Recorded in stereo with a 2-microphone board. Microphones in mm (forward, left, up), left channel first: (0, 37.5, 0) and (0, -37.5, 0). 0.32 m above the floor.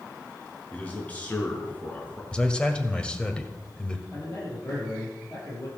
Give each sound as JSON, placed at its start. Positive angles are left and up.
{"t": 0.7, "sound": "a man speaking", "side_deg": 20, "distance_m": 4.5}
{"t": 2.3, "sound": "a man speaking", "side_deg": 15, "distance_m": 1.7}
{"t": 4.1, "sound": "a man speaking", "side_deg": 45, "distance_m": 10.0}